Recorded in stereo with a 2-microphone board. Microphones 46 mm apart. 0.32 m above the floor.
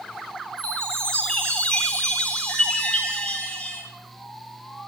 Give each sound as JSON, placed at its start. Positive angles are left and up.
{"t": 0.6, "sound": "a chime", "side_deg": 20, "distance_m": 9.0}